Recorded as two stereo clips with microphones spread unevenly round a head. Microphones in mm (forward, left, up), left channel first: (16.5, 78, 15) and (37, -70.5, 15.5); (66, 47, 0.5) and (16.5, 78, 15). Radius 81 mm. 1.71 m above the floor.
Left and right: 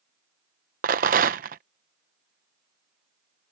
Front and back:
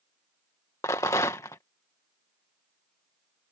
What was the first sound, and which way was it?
A rattle, 90° right.